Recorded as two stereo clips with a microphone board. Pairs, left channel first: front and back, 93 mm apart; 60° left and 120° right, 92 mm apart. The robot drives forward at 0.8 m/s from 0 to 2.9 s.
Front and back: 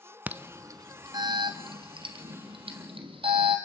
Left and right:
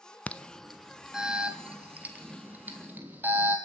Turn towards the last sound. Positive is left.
turn(degrees=170)